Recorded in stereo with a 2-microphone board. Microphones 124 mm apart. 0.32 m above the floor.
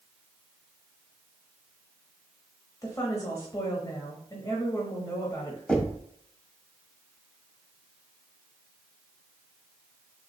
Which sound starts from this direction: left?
A woman speaking, at 2.8 s.